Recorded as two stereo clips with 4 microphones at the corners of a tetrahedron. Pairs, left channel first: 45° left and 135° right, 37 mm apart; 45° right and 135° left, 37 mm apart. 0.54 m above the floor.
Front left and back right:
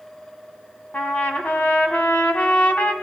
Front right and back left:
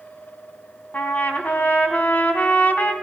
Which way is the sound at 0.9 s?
5° right.